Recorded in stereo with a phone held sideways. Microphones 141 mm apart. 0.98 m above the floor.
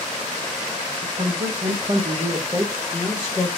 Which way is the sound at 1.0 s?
70° right (ahead or behind).